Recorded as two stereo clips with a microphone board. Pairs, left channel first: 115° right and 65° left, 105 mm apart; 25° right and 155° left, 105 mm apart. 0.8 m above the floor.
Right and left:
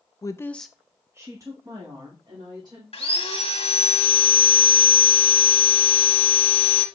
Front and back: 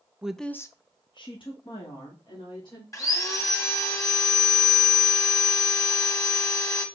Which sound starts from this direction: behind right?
A woman speaking, at 0.2 s.